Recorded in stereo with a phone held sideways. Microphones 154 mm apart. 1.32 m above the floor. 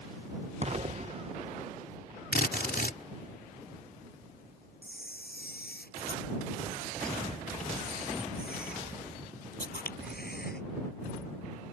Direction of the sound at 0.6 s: 45° right (ahead or behind).